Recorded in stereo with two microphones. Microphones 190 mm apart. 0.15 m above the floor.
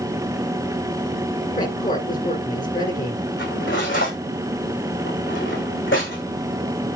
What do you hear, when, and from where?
1.6 s a woman speaking: 45° left (ahead or behind), 1.9 m
3.4 s cutlery clinking: 80° left, 7.5 m